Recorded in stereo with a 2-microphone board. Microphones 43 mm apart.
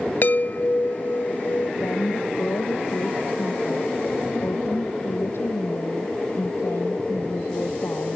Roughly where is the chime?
Left.